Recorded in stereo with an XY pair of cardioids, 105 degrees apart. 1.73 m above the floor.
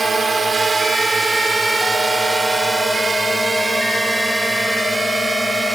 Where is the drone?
25° right; by 5.8 s straight ahead.